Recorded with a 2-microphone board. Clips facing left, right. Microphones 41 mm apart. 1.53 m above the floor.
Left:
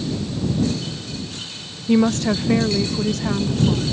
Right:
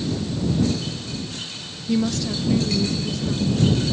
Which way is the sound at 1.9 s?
35° left (ahead or behind).